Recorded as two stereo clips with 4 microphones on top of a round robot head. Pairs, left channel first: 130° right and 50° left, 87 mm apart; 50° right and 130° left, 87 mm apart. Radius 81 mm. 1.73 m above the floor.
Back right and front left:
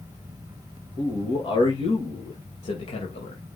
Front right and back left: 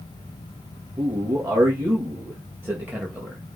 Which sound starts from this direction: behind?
A man speaking, at 1.0 s.